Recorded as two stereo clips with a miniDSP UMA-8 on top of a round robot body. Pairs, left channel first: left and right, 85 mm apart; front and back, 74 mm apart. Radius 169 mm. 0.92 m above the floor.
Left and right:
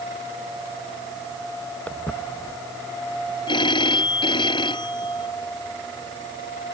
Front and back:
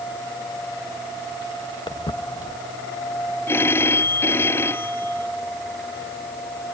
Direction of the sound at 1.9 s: 15° left.